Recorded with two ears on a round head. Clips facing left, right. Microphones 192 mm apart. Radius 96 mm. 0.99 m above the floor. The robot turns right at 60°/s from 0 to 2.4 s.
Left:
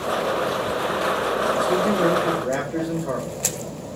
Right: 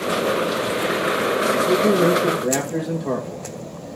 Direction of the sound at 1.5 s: 115° right.